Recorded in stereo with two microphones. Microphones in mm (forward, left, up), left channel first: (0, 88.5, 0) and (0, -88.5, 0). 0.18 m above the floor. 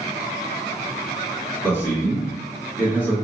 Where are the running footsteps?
I don't hear running footsteps.